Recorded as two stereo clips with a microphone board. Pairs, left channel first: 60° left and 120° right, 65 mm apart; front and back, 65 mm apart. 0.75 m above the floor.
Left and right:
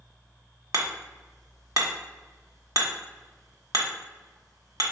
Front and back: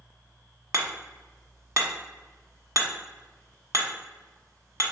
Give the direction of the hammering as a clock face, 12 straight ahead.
5 o'clock.